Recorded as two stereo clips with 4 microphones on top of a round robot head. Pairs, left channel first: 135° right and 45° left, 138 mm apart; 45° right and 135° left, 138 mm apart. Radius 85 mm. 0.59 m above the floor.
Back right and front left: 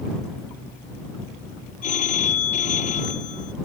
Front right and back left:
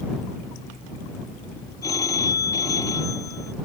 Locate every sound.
1.8 s a phone ringing: 110° right